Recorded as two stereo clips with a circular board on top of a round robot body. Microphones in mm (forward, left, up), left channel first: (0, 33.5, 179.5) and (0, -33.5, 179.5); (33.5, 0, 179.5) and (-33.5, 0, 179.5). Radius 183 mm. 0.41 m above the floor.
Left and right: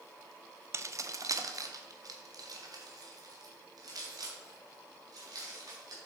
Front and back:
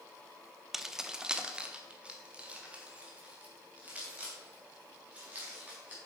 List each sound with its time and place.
0.7 s keys jangling: 95° right, 0.8 m; by 6.0 s 110° right, 4 m